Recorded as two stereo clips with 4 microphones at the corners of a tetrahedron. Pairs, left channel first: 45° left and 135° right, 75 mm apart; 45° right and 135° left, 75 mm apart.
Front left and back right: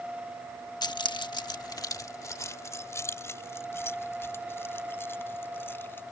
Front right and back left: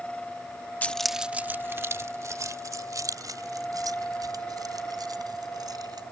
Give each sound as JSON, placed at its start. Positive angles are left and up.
{"t": 0.8, "sound": "keys jangling", "azimuth_deg": 25}